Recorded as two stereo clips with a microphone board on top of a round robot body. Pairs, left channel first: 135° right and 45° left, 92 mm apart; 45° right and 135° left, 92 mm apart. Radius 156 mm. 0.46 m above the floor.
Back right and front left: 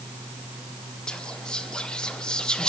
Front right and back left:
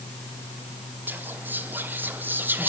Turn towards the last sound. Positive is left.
turn(degrees=160)